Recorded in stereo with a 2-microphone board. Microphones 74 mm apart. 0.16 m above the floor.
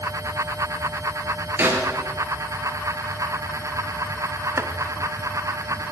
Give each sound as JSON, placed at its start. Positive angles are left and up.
{"t": 1.6, "sound": "a snare drum", "side_deg": -30, "distance_m": 3.0}
{"t": 4.6, "sound": "chopping", "side_deg": -40, "distance_m": 0.6}